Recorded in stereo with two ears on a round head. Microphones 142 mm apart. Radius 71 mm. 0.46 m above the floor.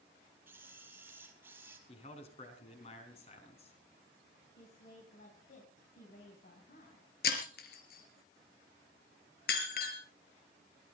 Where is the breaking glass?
65° left (ahead or behind), 3 m.